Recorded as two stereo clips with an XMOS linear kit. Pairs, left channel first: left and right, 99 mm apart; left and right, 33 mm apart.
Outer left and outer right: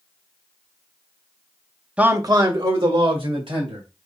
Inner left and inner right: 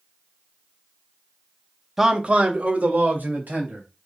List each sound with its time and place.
2.0 s a man speaking: 10° right (ahead or behind), 0.6 m; by 3.8 s 75° right (ahead or behind), 2.5 m